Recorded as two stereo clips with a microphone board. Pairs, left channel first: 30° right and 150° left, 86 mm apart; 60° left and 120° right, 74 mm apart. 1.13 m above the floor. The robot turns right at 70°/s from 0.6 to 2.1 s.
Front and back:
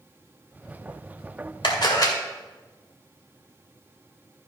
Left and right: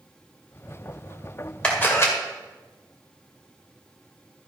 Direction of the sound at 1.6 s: 15° right.